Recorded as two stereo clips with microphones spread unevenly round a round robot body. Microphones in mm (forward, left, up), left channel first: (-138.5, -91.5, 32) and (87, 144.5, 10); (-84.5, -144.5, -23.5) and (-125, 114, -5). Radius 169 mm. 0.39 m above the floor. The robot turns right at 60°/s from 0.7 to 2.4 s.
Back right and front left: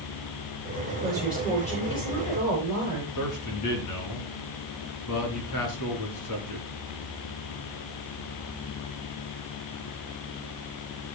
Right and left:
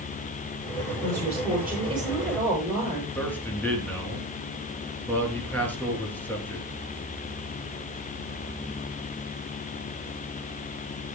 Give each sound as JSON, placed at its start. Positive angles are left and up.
{"t": 1.0, "sound": "a woman speaking", "azimuth_deg": 115, "distance_m": 8.0}
{"t": 3.1, "sound": "a man speaking", "azimuth_deg": -165, "distance_m": 4.5}